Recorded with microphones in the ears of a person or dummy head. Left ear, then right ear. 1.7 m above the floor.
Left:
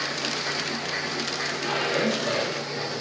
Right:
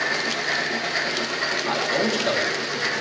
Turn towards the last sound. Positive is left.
turn(degrees=-85)